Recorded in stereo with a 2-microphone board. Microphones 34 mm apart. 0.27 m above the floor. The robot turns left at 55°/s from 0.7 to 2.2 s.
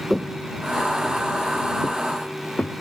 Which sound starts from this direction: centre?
Footsteps, at 0.1 s.